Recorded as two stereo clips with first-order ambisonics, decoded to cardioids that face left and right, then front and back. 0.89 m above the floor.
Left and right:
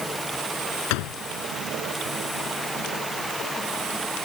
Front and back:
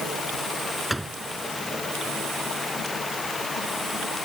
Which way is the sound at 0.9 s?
95° left.